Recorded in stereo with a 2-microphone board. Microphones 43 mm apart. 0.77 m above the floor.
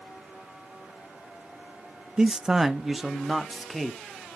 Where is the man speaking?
15° right (ahead or behind), 0.7 m; by 4.0 s centre (ahead or behind), 1.5 m.